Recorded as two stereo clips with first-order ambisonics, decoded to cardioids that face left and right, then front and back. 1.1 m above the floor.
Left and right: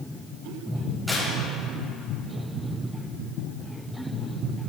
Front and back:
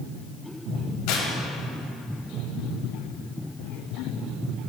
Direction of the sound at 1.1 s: Straight ahead.